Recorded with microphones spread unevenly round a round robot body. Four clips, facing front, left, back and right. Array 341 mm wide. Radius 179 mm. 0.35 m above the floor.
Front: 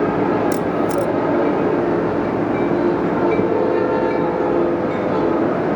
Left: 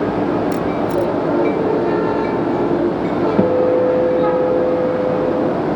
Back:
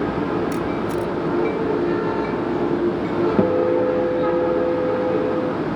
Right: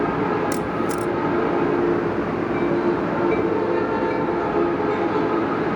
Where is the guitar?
85° left.